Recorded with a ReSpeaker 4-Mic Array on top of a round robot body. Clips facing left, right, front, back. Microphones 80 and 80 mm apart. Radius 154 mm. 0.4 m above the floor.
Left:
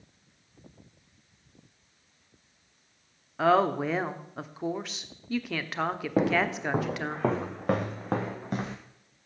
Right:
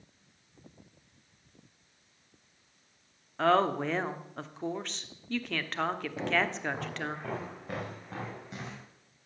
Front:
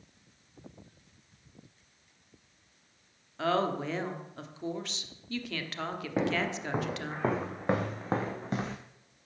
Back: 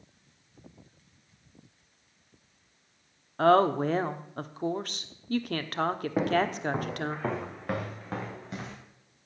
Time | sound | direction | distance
3.4 | a woman speaking | 170° left | 1.2 m
6.2 | footsteps | 95° left | 1.9 m